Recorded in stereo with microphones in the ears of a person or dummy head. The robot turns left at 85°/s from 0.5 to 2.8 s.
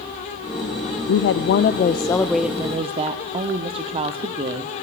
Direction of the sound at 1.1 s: 110° left.